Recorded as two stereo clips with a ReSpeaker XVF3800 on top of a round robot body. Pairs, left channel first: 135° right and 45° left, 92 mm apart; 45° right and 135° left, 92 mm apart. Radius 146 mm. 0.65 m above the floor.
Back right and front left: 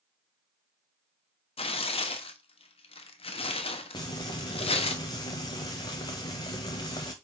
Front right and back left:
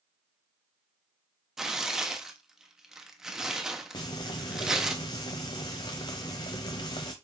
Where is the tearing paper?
140° right, 1.0 m.